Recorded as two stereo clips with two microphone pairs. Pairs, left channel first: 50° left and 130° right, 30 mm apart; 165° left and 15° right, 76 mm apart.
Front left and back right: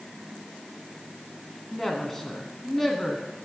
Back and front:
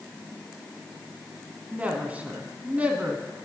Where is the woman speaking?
Straight ahead, 1.3 m.